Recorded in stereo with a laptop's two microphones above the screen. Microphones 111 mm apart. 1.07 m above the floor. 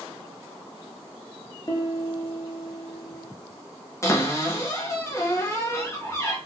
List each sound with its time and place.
1.7 s a piano: 35° left (ahead or behind), 0.8 m
4.0 s a cupboard door: 25° left (ahead or behind), 0.6 m